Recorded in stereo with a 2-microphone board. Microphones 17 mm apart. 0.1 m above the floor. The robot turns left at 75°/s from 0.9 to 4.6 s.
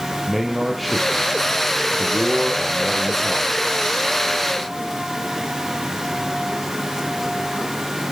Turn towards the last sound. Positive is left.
turn(degrees=85)